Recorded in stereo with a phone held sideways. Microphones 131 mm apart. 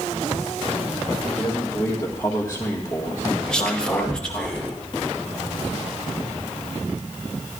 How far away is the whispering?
About 1.4 m.